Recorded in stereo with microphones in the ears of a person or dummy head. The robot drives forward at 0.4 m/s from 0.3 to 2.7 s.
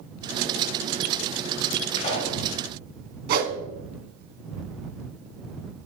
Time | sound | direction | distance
2.0 | a pop | 35° left (ahead or behind) | 2 m
3.3 | a whoosh | 50° right (ahead or behind) | 1.1 m